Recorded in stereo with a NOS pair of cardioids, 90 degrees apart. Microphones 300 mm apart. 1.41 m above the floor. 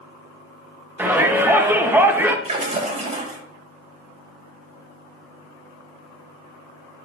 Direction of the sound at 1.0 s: 5° right.